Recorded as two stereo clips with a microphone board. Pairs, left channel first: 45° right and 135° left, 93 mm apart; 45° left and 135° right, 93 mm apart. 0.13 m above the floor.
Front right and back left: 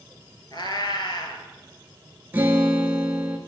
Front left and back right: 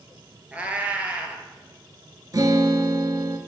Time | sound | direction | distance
0.5 | a cat meowing | 65° right | 1.0 m
2.3 | a guitar | 165° right | 0.8 m